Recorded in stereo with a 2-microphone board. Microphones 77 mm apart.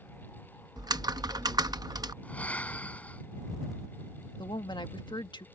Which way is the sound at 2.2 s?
20° left (ahead or behind).